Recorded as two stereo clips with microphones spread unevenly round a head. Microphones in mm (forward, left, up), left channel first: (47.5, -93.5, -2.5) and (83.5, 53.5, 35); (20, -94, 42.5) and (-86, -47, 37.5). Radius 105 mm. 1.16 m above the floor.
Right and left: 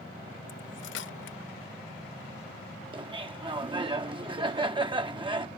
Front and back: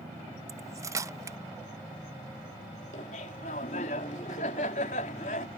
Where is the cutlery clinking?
140° right.